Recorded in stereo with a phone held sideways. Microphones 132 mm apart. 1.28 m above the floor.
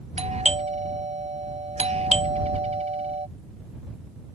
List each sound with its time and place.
0.2 s a doorbell: 55° right (ahead or behind)